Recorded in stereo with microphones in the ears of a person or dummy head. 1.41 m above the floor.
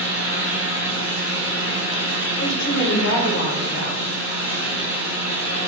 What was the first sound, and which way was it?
A fan, 70° left (ahead or behind).